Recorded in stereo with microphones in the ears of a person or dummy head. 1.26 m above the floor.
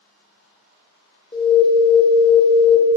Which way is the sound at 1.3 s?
25° left (ahead or behind).